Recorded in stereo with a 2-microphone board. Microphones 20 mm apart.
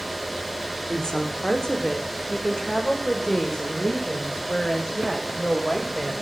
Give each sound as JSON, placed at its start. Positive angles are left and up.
{"t": 0.9, "sound": "a woman speaking", "side_deg": 35, "distance_m": 5.0}